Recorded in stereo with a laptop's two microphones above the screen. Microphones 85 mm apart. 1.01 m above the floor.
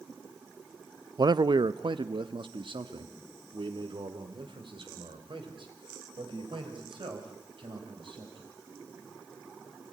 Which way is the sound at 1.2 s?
50° right (ahead or behind).